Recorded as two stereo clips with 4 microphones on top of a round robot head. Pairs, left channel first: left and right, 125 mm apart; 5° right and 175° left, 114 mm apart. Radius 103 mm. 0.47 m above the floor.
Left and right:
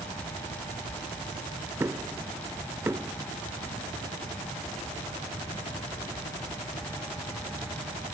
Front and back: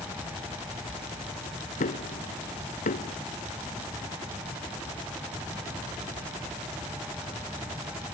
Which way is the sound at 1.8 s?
15° right.